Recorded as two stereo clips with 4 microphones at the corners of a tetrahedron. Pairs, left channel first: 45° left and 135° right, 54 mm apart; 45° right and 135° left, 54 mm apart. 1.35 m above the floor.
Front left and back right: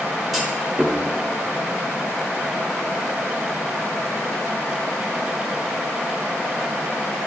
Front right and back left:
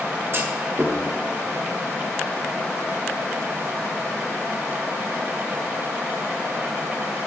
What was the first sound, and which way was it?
A clunk, 145° left.